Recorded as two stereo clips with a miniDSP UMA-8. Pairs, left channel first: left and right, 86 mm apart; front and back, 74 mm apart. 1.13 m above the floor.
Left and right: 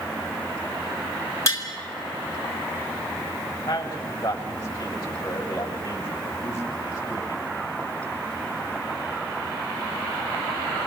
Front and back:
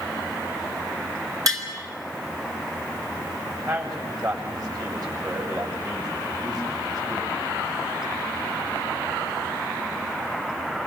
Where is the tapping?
145° left, 3 m.